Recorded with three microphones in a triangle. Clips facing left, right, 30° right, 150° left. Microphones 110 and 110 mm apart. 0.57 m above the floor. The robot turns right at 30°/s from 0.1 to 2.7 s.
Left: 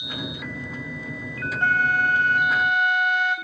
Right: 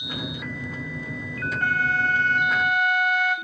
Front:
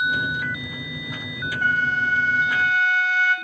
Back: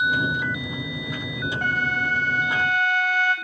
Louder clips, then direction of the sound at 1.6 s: Left 3 dB, front 4 dB; 150° left.